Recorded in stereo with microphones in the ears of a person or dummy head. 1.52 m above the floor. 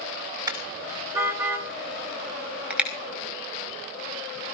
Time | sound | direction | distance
0.5 | a car horn | 25° right (ahead or behind) | 3.5 m